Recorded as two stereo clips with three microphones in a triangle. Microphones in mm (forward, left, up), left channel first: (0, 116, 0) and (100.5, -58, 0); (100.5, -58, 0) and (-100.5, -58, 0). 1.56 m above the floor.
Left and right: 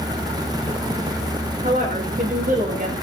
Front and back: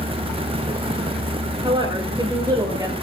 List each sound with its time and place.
1.6 s a woman speaking: 110° right, 8 m; by 2.9 s 105° right, 8 m